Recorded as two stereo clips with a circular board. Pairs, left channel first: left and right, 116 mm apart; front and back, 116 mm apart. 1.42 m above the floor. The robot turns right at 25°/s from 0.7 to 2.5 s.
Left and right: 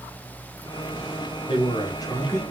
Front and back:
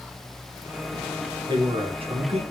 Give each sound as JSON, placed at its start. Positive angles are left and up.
{"t": 1.5, "sound": "a man speaking", "azimuth_deg": 135, "distance_m": 0.9}